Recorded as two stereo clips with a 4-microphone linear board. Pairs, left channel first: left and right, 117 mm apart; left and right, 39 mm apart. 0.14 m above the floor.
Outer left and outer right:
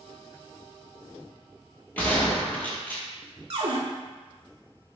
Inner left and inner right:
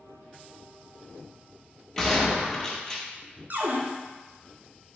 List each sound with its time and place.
2.0 s a gunshot: 15° left (ahead or behind), 0.7 m
3.5 s a cupboard door: 55° right (ahead or behind), 0.5 m